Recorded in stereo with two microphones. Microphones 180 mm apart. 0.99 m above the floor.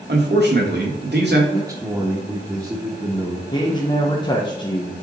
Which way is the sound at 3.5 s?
25° left (ahead or behind).